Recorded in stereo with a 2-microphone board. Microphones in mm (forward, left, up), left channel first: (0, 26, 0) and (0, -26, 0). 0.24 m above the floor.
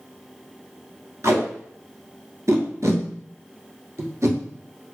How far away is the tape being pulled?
About 0.9 m.